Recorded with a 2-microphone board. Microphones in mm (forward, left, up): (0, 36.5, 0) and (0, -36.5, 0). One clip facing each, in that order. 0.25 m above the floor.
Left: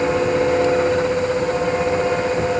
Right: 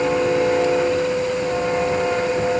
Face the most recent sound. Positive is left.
No sound to turn to.